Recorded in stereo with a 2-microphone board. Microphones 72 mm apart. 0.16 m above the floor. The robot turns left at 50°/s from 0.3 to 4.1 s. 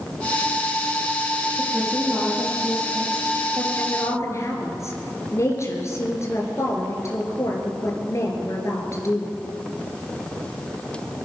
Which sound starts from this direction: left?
A woman speaking, at 3.8 s.